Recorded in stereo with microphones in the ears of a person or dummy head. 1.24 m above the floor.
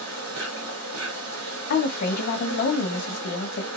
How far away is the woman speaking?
About 0.7 m.